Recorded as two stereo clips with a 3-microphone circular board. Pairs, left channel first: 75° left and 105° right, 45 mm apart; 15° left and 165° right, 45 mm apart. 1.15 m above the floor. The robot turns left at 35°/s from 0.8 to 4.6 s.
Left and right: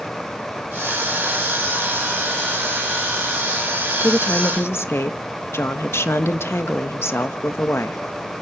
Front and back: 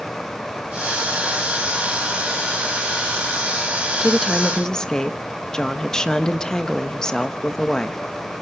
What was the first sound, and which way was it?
A woman speaking, 115° left.